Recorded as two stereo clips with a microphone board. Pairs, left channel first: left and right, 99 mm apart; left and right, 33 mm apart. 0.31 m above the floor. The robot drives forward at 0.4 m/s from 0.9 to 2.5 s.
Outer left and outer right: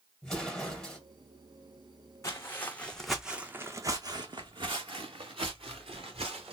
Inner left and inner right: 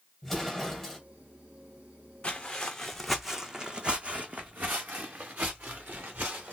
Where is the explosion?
5° left (ahead or behind), 1.6 m.